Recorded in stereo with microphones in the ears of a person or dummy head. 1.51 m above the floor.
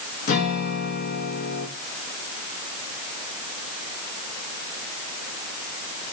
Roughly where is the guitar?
Left.